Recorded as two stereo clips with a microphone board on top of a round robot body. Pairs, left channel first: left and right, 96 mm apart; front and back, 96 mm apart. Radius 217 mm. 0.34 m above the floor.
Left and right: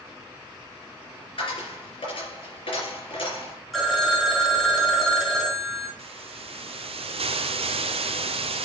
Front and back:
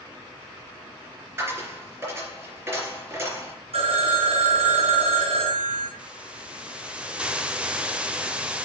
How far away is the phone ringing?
About 1.7 m.